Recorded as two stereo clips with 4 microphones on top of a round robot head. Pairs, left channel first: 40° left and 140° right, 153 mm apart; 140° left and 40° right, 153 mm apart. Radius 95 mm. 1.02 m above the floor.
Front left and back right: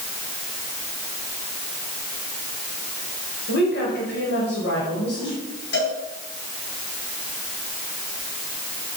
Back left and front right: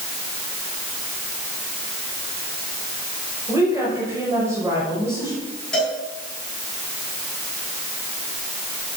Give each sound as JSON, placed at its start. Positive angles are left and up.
{"t": 3.5, "sound": "a woman speaking", "azimuth_deg": 35, "distance_m": 5.5}
{"t": 5.7, "sound": "a cowbell", "azimuth_deg": 55, "distance_m": 7.0}